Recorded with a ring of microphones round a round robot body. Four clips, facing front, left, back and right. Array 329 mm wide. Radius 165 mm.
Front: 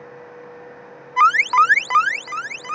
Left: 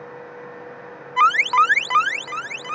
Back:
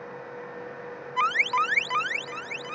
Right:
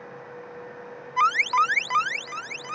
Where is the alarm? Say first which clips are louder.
Left 5 dB, front 11 dB; 30° left.